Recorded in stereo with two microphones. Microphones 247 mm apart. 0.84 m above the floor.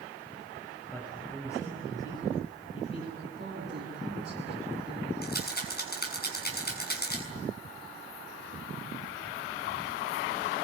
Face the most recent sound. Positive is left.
turn(degrees=40)  # may be behind; listen again after turning